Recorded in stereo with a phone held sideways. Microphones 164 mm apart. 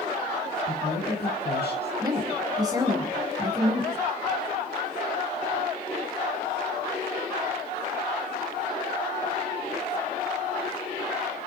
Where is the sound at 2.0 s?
25° right (ahead or behind), 4.5 m.